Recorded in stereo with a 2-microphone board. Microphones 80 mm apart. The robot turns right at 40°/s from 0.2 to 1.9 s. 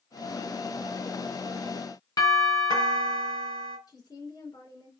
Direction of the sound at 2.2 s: 55° left (ahead or behind).